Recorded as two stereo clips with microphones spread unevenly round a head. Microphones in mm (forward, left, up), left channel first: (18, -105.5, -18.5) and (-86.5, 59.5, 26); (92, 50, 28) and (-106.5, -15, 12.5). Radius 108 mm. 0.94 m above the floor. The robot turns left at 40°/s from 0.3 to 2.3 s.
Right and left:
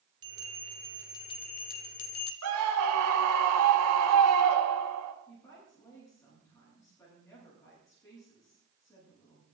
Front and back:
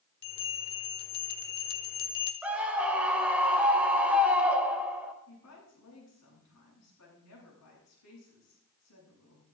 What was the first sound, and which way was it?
A bell, 55° left.